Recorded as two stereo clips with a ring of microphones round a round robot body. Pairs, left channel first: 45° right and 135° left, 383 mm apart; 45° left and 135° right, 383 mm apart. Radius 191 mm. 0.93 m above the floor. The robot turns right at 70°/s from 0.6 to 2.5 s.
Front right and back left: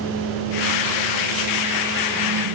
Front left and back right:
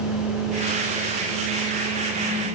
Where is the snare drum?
I don't hear a snare drum.